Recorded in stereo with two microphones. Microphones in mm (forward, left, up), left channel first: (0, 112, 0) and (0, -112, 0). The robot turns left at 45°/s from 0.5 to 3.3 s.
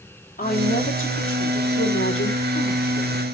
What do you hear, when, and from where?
0.4 s a woman speaking: 140° left, 2.5 m; by 3.2 s 15° left, 2.5 m